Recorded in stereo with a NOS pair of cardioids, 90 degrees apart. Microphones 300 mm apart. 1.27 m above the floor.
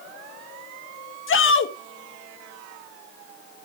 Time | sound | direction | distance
1.3 | a shout | 45° left | 1.8 m